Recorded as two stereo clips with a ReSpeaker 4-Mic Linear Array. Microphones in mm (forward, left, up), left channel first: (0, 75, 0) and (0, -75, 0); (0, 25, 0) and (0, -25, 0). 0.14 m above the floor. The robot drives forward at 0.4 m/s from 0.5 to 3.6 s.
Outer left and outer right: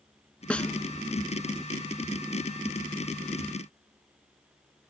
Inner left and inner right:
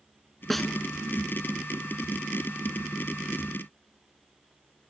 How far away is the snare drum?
About 0.6 m.